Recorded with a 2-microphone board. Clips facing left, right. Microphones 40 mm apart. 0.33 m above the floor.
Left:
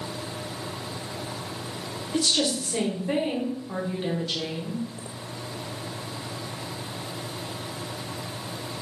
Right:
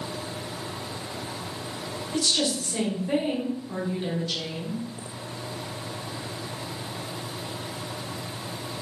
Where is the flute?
I don't hear a flute.